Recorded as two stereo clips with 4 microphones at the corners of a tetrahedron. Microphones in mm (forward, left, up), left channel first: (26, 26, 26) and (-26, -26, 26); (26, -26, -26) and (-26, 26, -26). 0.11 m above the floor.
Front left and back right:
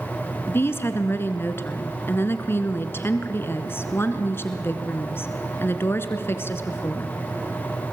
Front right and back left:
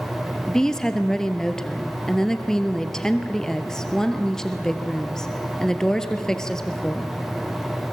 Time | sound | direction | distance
0.5 | a woman speaking | 30° left | 1.5 m